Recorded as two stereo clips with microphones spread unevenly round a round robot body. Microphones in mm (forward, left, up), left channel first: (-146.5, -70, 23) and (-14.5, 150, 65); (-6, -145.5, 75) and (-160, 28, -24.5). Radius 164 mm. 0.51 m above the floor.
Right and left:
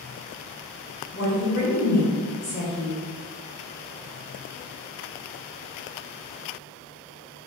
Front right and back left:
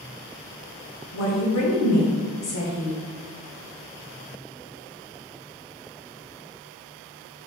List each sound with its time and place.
1.1 s a woman speaking: 75° right, 1.5 m